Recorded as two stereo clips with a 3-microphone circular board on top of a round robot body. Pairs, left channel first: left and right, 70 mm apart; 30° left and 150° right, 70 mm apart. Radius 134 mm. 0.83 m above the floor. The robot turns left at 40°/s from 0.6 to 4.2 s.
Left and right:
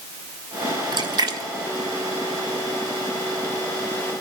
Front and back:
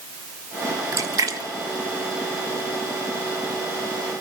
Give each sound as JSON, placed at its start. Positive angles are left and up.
{"t": 0.9, "sound": "a splash", "azimuth_deg": -100, "distance_m": 1.6}